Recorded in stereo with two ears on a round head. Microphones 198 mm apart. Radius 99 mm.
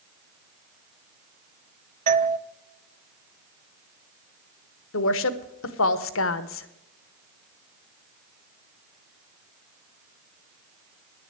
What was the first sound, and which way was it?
A doorbell, 35° right (ahead or behind).